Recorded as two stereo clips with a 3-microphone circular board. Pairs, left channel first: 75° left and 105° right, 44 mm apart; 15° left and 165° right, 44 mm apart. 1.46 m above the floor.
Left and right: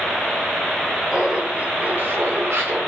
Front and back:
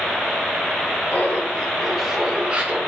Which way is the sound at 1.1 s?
30° right.